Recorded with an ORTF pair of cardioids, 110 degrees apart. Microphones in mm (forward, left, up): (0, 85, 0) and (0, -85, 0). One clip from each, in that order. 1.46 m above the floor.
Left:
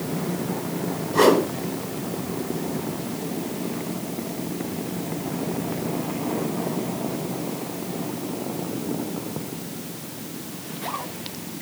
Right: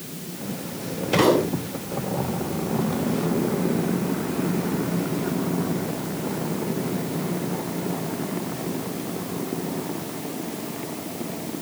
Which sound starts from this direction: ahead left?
A whoosh, at 1.1 s.